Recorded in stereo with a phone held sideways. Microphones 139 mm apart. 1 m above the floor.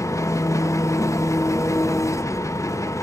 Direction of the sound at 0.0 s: 20° left (ahead or behind).